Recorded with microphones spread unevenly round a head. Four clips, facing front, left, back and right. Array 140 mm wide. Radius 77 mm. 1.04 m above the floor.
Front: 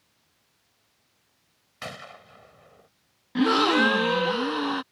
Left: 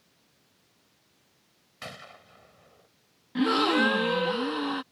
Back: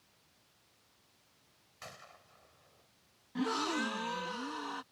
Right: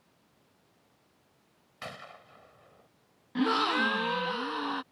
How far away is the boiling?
I don't hear boiling.